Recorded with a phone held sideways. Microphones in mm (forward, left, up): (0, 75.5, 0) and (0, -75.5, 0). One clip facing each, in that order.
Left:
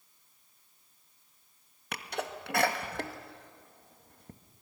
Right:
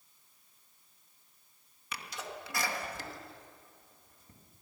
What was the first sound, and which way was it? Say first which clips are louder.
A sneeze: left 6 dB; 60° left (ahead or behind).